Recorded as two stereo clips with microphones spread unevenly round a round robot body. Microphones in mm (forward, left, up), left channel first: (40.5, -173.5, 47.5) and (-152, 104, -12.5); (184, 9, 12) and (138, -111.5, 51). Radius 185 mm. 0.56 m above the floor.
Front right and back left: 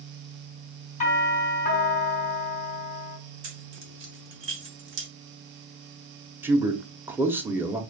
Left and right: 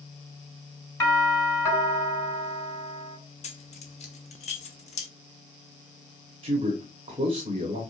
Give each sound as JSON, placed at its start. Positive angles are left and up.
{"t": 1.0, "sound": "a doorbell", "azimuth_deg": 20, "distance_m": 3.5}
{"t": 3.4, "sound": "keys jangling", "azimuth_deg": 70, "distance_m": 0.8}
{"t": 6.4, "sound": "a man speaking", "azimuth_deg": -165, "distance_m": 0.8}